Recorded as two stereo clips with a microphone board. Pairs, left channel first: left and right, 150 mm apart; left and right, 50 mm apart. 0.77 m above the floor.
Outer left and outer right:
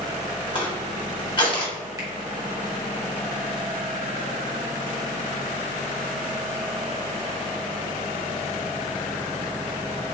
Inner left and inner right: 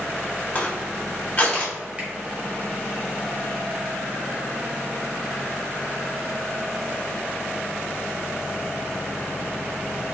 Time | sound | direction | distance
0.6 | crushing | 35° left (ahead or behind) | 1.3 m
2.0 | a finger snap | 25° right (ahead or behind) | 1.4 m